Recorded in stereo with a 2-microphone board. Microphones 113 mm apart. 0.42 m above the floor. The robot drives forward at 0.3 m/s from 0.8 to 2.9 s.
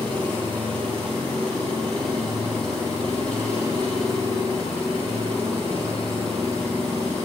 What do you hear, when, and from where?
0.0 s an engine running: 10° left (ahead or behind), 3 m